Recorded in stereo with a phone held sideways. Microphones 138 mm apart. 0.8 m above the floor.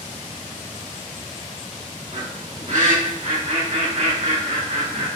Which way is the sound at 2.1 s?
70° right (ahead or behind).